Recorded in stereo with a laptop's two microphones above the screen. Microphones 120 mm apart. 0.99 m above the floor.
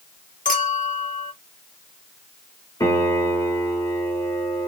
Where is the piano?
25° left (ahead or behind), 1.4 m.